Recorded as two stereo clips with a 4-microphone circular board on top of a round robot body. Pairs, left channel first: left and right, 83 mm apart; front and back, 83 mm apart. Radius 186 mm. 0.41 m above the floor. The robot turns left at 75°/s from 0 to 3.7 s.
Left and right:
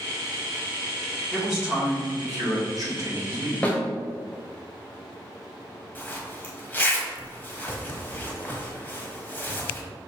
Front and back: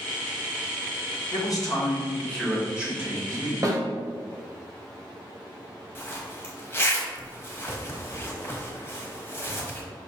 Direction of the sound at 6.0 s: 40° left.